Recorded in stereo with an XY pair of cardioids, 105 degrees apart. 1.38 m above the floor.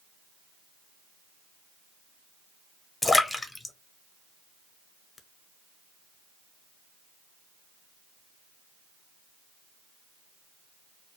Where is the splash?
20° left, 0.6 m.